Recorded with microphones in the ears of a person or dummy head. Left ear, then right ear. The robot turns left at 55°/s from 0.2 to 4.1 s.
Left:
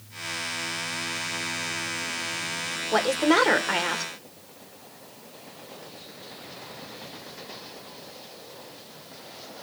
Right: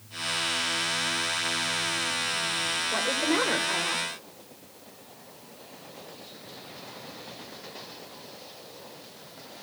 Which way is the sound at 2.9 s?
110° left.